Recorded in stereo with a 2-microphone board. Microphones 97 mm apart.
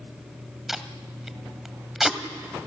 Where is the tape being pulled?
5° right (ahead or behind), 1.4 m.